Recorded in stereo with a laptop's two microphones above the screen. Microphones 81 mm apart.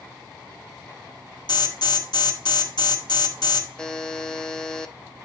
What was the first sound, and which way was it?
An alarm, 65° left (ahead or behind).